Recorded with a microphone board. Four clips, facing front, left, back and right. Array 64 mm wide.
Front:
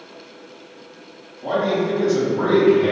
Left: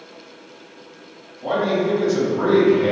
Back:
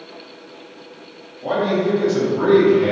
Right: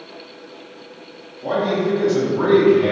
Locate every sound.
1.4 s a man speaking: 150° left, 1.2 m; by 2.9 s 100° right, 1.2 m